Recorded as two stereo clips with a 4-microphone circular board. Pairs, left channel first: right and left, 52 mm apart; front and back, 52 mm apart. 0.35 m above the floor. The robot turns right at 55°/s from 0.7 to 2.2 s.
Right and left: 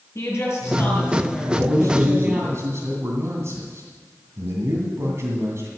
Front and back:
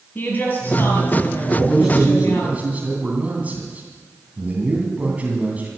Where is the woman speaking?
55° right, 7.5 m; by 2.5 s 30° left, 7.5 m.